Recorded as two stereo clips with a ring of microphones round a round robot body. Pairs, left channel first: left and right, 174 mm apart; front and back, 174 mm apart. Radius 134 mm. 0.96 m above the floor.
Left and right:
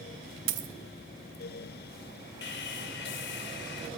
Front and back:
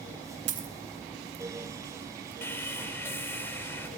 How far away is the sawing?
About 2.5 m.